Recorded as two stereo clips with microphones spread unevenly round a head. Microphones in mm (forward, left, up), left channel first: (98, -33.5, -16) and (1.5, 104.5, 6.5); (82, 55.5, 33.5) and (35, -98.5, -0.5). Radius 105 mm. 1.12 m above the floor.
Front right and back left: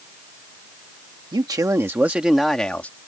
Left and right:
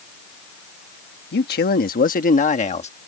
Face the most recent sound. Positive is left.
turn(degrees=25)